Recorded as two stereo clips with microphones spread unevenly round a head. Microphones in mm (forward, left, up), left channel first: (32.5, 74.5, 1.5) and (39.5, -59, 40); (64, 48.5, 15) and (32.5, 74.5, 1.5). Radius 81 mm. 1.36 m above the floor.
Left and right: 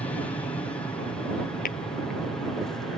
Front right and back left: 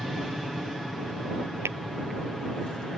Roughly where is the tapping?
Behind left.